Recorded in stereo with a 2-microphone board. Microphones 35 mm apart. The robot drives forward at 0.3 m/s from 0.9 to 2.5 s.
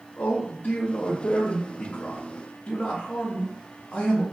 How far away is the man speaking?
About 0.7 m.